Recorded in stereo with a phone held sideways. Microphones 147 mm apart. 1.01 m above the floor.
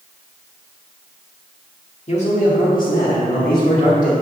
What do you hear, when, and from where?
2.1 s a man speaking: 45° left (ahead or behind), 1.7 m; by 4.1 s 80° left, 2.5 m